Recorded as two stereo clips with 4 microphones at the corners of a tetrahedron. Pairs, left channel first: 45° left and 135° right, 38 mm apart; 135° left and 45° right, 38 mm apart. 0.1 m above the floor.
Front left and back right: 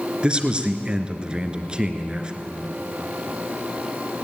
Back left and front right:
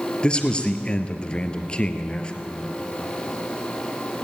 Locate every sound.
0.2 s a man speaking: straight behind, 1.7 m